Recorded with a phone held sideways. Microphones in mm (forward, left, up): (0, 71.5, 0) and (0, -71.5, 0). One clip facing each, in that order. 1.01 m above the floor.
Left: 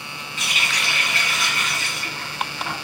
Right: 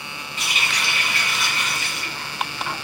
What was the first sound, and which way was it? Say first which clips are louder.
A running tap: right 1 dB; 40° left (ahead or behind).